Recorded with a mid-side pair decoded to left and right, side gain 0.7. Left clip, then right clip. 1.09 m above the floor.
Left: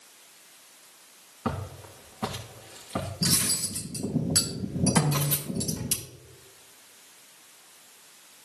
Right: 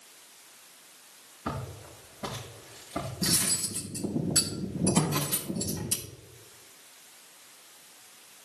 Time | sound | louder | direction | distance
1.4 | footsteps | left 3 dB | 60° left | 4 m
3.2 | cutlery clinking | left 2 dB | 50° left | 3.5 m
5.0 | a snare drum | left 3 dB | 55° left | 3.5 m